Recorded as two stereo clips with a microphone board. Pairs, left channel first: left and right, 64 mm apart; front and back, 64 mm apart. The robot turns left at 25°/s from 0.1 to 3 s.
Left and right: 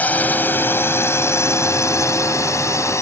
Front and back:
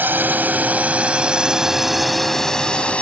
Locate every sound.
0.0 s a drone: 140° left; by 3.0 s 70° left